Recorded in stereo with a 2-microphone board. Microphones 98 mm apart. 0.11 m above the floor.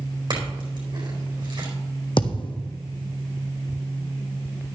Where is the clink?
55° right (ahead or behind), 4 m.